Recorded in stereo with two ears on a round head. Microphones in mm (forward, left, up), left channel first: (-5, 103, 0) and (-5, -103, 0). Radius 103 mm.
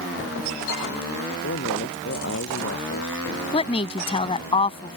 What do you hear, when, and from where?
1.4 s a man speaking: 50° left (ahead or behind)
3.5 s a woman speaking: 25° left (ahead or behind)